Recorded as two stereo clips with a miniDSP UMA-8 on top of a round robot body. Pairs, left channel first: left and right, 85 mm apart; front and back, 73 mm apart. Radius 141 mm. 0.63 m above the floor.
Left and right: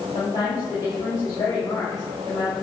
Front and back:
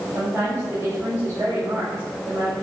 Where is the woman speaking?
130° left, 4.5 m.